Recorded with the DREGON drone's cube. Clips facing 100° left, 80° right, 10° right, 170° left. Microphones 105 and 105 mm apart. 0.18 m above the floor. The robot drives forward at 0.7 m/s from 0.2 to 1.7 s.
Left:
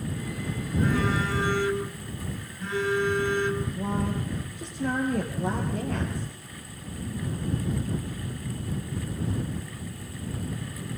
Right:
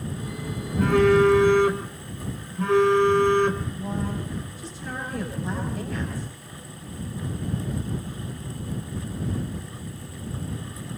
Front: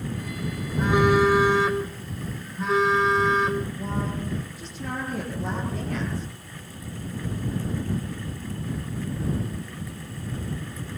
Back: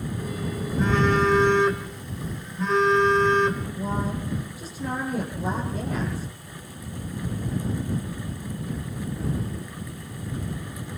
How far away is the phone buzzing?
About 3.5 m.